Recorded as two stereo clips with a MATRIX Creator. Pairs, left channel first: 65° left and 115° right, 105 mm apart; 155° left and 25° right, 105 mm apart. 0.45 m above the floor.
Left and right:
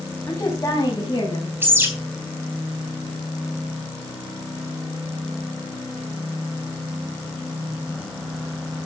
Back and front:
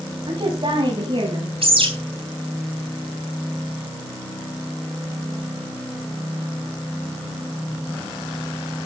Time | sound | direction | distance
0.3 | a woman speaking | 5° left | 2.5 m
1.6 | a bird | 45° right | 3.5 m